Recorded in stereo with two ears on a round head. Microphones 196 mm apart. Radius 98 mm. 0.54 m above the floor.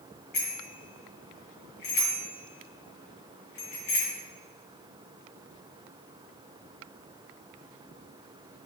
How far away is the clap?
I don't hear a clap.